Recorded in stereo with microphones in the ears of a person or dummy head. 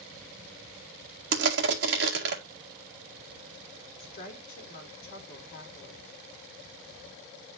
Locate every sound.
1.3 s crushing: 70° right (ahead or behind), 2.0 m
4.0 s a woman speaking: 45° left (ahead or behind), 3.5 m